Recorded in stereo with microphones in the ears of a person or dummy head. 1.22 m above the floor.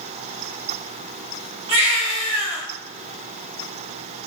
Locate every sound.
1.7 s a baby crying: 30° right (ahead or behind), 2.0 m